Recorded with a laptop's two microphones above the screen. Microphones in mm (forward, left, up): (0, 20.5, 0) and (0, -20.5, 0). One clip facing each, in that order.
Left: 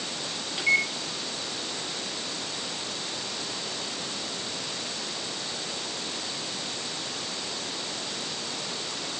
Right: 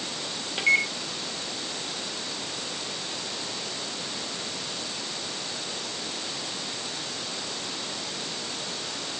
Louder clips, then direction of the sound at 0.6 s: Right 1 dB; 30° right (ahead or behind).